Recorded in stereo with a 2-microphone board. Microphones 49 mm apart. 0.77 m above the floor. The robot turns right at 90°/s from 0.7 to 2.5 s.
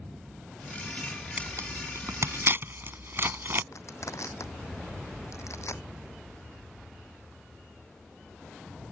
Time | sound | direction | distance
1.4 | tearing paper | 30° right (ahead or behind) | ?
3.7 | crushing | 85° left | ?